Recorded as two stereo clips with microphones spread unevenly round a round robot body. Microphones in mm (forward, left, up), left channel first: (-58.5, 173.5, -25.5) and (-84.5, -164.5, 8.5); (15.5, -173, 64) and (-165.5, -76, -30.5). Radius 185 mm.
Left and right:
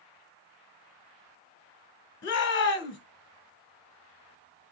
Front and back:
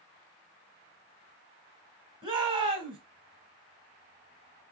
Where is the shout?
125° left, 1.2 m.